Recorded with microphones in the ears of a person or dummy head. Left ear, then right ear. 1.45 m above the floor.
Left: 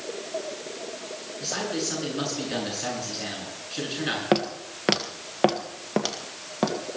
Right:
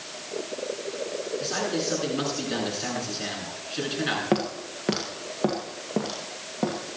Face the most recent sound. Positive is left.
turn(degrees=55)  # may be behind; listen again after turning